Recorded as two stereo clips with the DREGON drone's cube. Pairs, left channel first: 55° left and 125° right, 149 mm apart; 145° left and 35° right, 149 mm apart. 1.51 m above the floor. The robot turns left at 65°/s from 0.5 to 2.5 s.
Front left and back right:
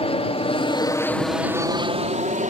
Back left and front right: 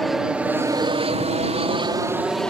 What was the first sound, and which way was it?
An aircraft, 55° left.